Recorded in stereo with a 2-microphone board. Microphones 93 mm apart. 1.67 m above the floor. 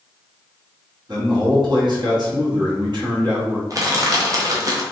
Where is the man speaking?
50° right (ahead or behind), 1.3 m.